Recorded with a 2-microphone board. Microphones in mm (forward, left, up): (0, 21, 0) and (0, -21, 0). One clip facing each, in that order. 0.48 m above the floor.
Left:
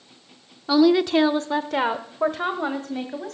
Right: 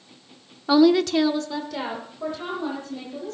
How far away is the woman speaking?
About 0.8 m.